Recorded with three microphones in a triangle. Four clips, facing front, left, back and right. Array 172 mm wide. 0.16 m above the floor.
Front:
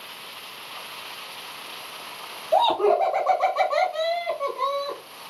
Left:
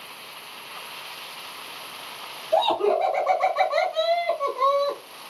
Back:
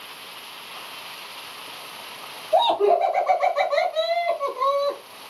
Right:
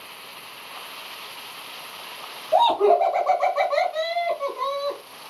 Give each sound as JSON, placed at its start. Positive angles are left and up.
{"t": 2.5, "sound": "laughter", "azimuth_deg": -35, "distance_m": 1.5}